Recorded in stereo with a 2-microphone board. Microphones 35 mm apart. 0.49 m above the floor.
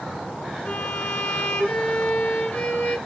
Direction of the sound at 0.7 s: 50° left (ahead or behind).